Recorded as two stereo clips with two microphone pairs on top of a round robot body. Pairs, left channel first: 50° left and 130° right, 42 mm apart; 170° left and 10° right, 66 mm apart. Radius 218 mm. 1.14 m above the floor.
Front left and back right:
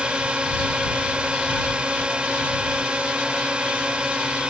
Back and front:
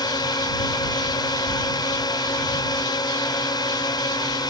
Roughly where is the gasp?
No gasp in this recording.